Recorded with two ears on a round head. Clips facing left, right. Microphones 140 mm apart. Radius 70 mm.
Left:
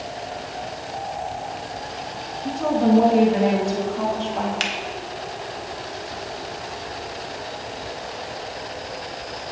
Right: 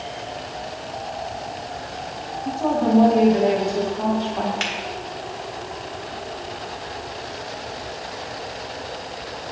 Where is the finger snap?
40° left (ahead or behind), 1.7 m.